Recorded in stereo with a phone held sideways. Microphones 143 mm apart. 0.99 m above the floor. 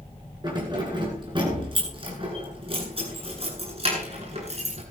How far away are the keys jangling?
About 9.5 m.